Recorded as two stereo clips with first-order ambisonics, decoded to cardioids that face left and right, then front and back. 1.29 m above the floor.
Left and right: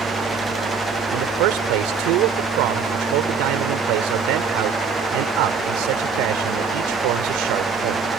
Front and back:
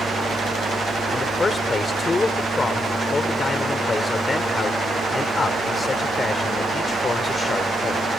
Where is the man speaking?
75° right.